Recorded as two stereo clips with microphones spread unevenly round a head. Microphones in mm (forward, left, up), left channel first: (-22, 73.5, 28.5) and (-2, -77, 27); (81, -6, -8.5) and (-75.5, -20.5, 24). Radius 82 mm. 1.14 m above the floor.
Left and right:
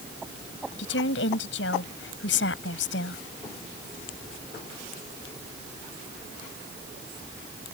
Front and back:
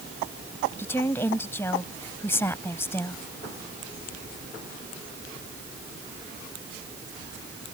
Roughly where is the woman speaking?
Left.